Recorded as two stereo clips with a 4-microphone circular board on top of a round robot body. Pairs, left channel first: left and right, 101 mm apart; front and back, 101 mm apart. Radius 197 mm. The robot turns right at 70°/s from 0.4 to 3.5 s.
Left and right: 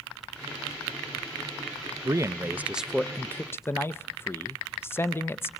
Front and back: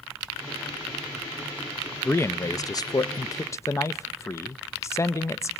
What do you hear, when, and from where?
2.0 s a man speaking: 60° right, 0.7 m; by 5.5 s 40° left, 0.7 m